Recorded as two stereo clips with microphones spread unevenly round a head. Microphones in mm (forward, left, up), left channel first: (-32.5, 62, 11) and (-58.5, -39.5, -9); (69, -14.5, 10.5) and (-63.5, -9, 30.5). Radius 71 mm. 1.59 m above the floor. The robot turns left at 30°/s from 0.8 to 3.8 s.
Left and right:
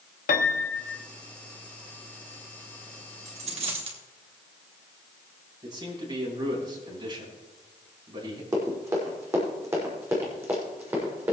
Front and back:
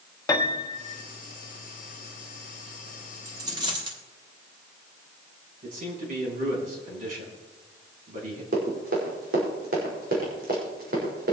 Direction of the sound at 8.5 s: 165° right.